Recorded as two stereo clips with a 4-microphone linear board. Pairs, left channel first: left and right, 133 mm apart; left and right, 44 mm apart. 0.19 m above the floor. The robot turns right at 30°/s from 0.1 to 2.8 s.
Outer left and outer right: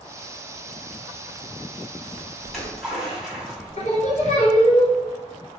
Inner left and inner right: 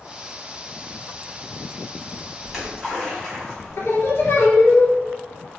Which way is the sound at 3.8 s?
65° left (ahead or behind).